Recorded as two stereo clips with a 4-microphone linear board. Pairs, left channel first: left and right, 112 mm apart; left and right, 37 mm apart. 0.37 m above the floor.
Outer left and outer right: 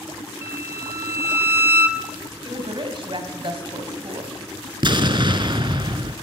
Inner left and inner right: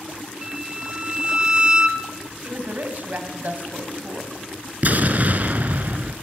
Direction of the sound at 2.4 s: 50° right (ahead or behind).